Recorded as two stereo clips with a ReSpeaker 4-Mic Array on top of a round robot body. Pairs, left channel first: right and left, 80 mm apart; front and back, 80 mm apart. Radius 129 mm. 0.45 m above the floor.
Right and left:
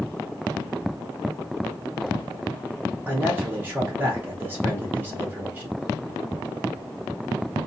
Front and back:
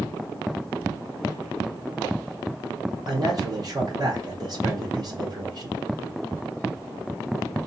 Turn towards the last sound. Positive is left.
turn(degrees=150)